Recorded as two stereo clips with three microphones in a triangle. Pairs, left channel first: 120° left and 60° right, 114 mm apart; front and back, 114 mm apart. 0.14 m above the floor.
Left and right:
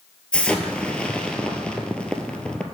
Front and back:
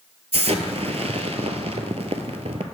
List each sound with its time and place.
0.3 s an explosion: 160° right, 0.6 m